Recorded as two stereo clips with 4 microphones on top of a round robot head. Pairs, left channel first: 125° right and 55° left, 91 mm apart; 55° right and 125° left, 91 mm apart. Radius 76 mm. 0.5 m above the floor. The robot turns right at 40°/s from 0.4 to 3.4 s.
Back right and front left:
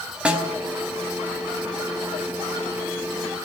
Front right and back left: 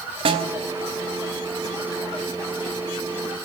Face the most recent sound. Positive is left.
turn(degrees=-110)